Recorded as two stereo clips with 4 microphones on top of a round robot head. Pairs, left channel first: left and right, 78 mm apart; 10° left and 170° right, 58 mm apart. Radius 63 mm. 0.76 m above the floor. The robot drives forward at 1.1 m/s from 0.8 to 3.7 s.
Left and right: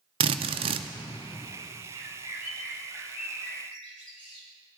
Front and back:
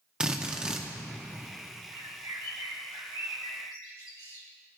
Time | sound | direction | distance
0.2 | a drill | 95° right | 0.5 m
1.9 | a bird | 130° right | 1.0 m